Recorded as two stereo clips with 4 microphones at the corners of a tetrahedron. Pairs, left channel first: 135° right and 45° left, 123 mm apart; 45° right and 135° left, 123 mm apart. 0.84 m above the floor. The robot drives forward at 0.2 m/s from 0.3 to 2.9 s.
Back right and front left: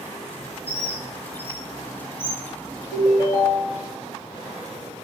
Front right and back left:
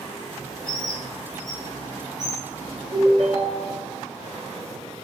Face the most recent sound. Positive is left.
turn(degrees=165)